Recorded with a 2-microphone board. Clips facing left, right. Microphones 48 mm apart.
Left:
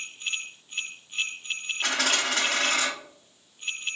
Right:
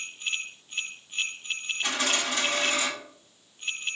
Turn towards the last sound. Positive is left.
turn(degrees=75)  # may be behind; listen again after turning